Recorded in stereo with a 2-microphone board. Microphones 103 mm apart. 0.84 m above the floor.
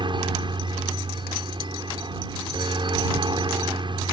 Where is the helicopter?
50° right (ahead or behind).